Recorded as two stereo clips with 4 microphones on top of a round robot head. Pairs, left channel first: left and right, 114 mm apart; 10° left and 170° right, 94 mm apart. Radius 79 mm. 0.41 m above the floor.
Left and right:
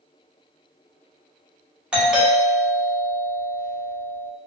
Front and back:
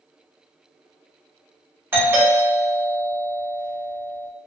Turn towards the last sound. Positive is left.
turn(degrees=-155)